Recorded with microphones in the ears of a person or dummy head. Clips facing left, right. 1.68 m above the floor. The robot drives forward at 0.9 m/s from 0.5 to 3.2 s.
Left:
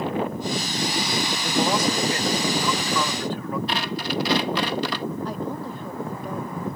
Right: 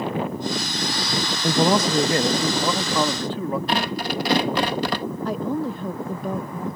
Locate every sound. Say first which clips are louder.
1.4 s a man speaking: right 4 dB; 50° right (ahead or behind); by 3.6 s 25° right (ahead or behind)
3.7 s tearing paper: right 3 dB; 45° right (ahead or behind)
5.2 s a woman speaking: right 5 dB; 55° right (ahead or behind)